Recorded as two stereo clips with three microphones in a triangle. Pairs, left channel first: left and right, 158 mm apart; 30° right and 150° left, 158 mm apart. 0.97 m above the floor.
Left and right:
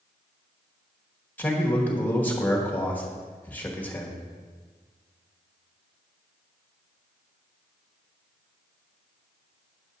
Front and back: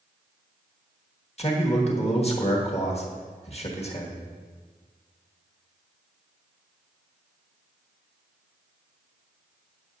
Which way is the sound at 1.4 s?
15° left.